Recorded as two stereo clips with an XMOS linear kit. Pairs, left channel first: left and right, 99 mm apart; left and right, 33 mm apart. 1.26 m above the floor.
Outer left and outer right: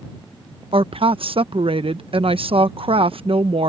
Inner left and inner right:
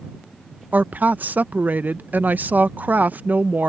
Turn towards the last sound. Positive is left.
turn(degrees=-70)  # may be behind; listen again after turning